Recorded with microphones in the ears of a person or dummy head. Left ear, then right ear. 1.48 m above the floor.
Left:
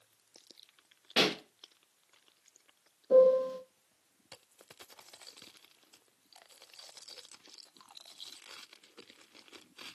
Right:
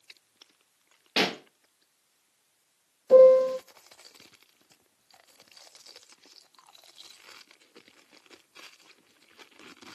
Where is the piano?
35° right (ahead or behind), 0.7 m.